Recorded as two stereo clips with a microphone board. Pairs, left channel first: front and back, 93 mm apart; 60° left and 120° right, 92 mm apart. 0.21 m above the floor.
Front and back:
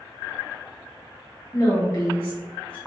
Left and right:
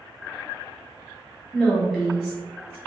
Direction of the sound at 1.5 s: 20° right.